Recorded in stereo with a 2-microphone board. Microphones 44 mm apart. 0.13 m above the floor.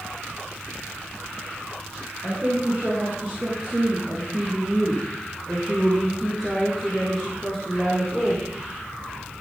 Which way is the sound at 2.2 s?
25° right (ahead or behind).